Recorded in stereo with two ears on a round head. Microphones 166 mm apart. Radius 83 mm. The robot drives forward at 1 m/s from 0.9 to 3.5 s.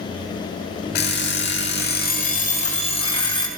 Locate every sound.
0.9 s an alarm clock: 55° left (ahead or behind), 1.3 m; by 3.5 s 25° left (ahead or behind), 2.5 m